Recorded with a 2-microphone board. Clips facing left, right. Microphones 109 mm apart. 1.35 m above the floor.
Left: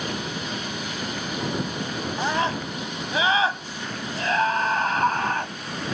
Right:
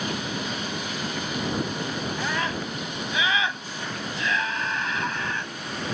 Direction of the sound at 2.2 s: 30° left (ahead or behind).